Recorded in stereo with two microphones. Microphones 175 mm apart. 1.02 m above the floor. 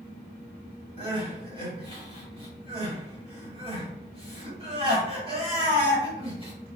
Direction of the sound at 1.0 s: 35° right (ahead or behind).